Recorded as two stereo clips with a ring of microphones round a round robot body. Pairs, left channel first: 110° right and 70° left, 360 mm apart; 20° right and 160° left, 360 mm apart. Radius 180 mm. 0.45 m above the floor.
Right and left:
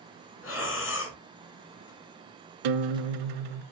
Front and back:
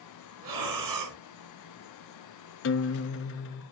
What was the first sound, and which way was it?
Breathing, 170° right.